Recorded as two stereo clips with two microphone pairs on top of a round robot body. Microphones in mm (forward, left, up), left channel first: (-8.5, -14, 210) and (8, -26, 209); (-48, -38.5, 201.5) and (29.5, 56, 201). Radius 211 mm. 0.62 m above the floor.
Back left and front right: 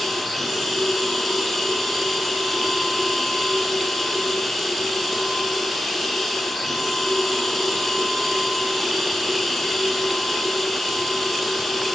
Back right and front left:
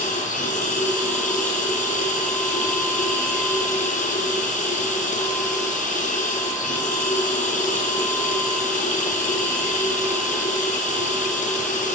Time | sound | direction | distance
0.0 | running water | 130° right | 1.2 m